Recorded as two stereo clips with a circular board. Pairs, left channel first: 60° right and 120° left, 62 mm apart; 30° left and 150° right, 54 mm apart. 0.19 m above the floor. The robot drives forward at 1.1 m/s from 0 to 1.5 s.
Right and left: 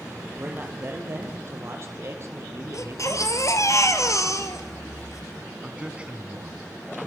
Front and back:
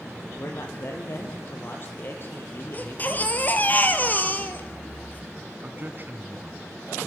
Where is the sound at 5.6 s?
Straight behind, 1.6 m.